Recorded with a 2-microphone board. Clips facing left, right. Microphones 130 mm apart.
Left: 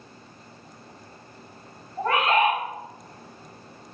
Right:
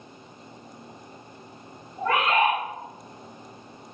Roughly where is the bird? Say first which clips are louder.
Left 1 dB; left.